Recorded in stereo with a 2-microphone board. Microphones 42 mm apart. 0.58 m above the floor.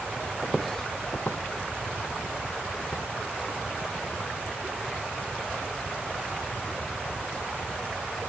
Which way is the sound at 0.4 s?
15° right (ahead or behind).